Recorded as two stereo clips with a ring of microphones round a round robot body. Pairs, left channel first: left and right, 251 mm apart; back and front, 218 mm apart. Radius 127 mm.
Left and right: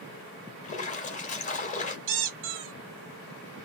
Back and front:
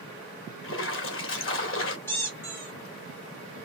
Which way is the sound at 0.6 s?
155° left.